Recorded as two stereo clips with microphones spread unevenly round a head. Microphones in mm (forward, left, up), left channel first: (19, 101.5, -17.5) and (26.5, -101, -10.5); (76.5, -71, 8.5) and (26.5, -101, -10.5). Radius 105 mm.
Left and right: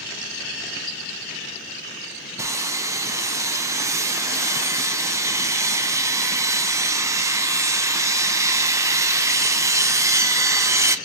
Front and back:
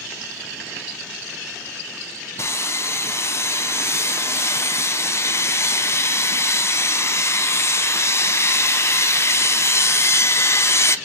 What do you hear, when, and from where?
2.4 s sawing: 10° right, 0.5 m